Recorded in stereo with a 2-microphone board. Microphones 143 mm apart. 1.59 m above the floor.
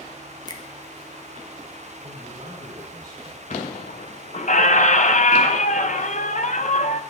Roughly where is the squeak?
Left.